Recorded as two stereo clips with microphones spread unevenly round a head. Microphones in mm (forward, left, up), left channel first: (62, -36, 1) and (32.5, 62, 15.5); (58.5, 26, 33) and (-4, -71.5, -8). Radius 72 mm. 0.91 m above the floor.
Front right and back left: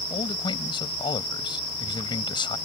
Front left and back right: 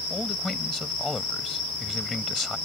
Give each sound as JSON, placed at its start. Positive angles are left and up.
{"t": 0.1, "sound": "a man speaking", "azimuth_deg": -30}